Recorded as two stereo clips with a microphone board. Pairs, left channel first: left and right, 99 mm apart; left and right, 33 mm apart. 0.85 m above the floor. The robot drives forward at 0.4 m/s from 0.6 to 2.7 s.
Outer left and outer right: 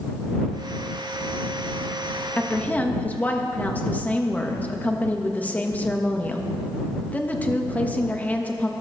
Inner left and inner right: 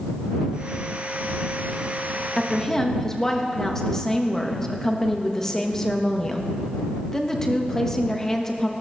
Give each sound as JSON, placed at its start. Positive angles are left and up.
{"t": 2.4, "sound": "a woman speaking", "side_deg": 15, "distance_m": 1.2}